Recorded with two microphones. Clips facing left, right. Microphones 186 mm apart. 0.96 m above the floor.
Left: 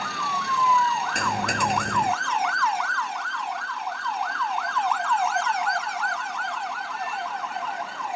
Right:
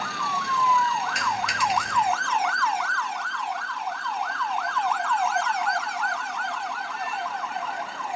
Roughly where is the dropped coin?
Left.